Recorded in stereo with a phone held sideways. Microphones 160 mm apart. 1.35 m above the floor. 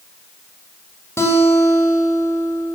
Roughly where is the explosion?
No explosion in this recording.